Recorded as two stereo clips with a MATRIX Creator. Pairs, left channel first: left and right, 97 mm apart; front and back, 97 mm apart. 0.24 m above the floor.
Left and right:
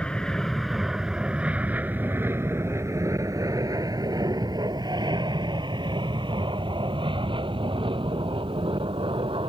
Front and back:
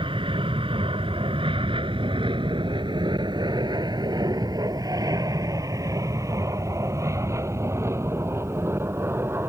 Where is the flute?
No flute in this recording.